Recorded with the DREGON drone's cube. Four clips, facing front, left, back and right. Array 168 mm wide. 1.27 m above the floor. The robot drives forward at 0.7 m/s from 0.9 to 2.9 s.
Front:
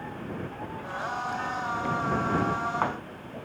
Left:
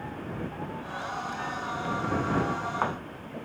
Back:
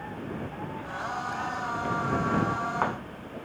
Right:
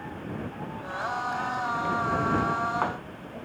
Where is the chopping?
No chopping in this recording.